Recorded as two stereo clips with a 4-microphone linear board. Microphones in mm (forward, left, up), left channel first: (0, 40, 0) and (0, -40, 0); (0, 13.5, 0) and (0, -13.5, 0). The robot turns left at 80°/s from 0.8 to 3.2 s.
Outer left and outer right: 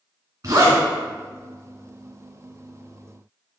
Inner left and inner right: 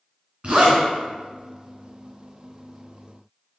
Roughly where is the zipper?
Right.